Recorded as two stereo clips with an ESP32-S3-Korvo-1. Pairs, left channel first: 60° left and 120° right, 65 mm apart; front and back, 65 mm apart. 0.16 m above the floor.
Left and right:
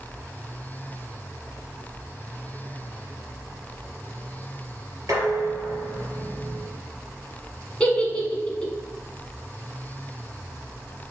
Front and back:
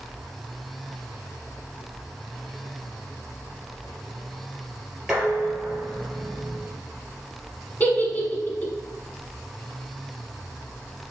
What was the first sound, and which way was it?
Dishes clattering, 100° right.